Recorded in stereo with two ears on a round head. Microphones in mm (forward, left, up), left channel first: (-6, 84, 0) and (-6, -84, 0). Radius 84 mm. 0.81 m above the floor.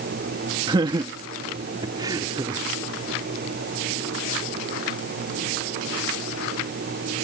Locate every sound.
0.7 s laughter: 25° right (ahead or behind); by 2.6 s 20° right (ahead or behind)